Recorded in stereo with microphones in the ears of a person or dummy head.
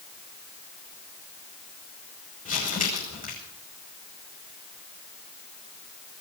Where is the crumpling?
35° left (ahead or behind), 6 m.